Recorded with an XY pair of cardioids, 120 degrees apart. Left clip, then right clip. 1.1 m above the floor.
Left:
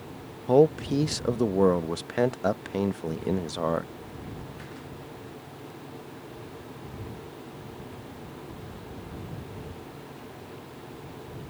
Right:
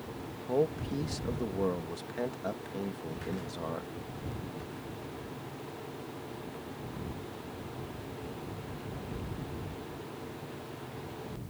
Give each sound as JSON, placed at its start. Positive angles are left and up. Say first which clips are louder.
{"t": 0.5, "sound": "a man speaking", "louder": "left 10 dB", "azimuth_deg": 60}